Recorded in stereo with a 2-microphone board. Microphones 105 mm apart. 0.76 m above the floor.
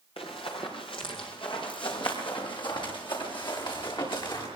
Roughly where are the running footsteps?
Left.